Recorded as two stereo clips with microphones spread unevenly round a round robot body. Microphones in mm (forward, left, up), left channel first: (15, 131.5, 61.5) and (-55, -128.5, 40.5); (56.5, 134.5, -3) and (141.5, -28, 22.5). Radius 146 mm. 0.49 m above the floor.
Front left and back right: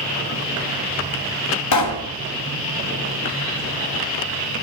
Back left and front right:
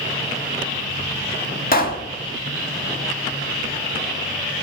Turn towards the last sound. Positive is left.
turn(degrees=85)